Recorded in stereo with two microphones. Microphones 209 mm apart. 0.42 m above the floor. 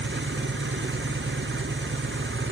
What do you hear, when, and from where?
0.0 s an engine running: 65° right (ahead or behind), 2.5 m